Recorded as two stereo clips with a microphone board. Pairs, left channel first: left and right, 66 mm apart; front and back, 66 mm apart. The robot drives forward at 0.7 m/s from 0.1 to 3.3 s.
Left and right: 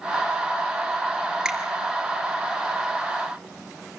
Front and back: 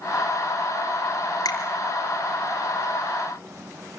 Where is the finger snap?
10° right, 5 m.